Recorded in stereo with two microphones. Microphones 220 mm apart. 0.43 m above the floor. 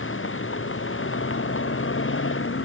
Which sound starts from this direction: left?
A vehicle, at 0.0 s.